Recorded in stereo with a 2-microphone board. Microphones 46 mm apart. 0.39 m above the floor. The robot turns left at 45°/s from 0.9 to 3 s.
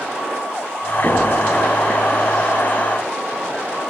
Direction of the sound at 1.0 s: 65° right (ahead or behind).